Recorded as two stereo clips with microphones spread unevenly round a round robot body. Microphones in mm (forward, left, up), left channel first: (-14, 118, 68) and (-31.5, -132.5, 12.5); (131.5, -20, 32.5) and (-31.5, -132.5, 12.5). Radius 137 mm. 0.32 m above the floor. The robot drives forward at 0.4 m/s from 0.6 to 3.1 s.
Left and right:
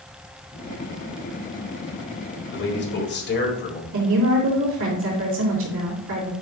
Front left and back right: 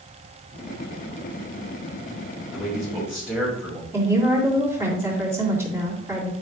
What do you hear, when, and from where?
2.5 s a man speaking: 130° left, 1.9 m; by 3.8 s 135° left, 2.0 m
3.9 s a woman speaking: 70° right, 2.5 m